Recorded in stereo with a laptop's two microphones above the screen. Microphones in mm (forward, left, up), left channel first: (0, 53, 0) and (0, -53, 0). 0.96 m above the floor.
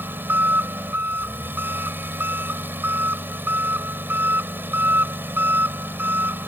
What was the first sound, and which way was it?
An engine running, 20° right (ahead or behind).